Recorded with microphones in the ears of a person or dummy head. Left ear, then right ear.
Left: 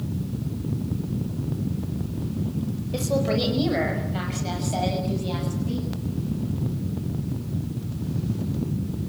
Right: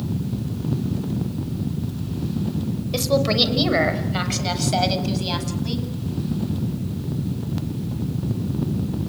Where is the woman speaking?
30° right (ahead or behind), 5.5 m; by 5.9 s 55° right (ahead or behind), 8.5 m.